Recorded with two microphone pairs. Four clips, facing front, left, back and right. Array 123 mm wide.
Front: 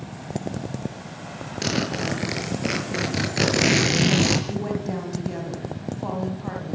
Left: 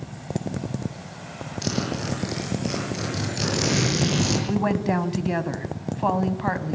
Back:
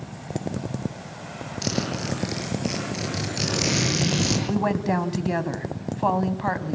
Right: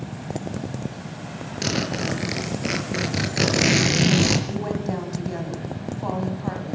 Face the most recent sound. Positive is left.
turn(degrees=150)